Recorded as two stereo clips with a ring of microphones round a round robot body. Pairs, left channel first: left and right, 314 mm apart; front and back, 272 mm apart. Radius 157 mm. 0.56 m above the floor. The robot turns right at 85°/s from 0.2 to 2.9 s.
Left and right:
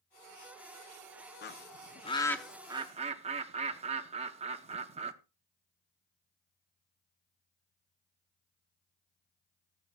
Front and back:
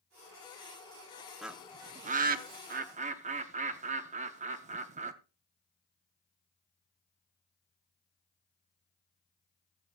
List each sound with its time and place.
1.4 s a bird: 90° left, 0.6 m; by 5.1 s 140° right, 0.6 m